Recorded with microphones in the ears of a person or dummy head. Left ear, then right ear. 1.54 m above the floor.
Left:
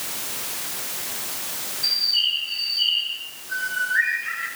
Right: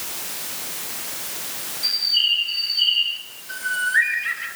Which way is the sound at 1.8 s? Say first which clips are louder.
Right 2 dB; 20° right (ahead or behind).